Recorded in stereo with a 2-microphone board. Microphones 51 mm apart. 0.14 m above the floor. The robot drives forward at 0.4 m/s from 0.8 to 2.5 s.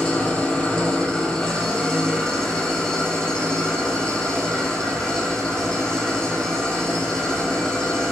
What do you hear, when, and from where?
0.0 s an engine running: 20° left (ahead or behind), 1.7 m; by 8.1 s 15° left (ahead or behind), 2.5 m